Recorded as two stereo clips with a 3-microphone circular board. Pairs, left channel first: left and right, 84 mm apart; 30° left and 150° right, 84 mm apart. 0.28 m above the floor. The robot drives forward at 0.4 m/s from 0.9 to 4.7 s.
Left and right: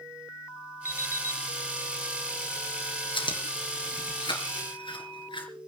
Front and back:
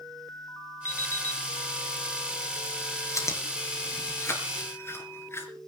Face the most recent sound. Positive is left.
turn(degrees=90)